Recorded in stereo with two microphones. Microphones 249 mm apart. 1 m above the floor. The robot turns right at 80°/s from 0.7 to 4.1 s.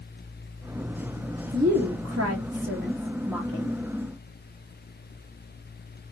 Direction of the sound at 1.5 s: 145° right.